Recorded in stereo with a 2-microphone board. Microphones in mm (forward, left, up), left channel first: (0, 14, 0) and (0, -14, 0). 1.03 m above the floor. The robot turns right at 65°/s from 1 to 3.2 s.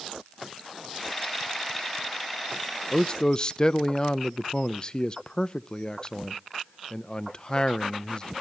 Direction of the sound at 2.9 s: 35° left (ahead or behind).